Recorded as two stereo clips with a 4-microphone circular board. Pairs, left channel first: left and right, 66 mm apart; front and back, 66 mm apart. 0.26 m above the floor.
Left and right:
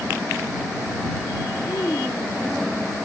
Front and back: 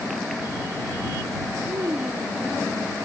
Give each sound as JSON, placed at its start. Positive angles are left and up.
{"t": 1.7, "sound": "a child speaking", "azimuth_deg": 145}